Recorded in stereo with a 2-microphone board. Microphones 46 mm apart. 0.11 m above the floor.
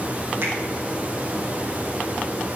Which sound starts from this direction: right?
A finger snap, at 0.4 s.